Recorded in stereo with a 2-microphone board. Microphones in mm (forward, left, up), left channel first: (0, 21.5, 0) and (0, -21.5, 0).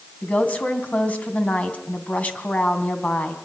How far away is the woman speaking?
About 3 m.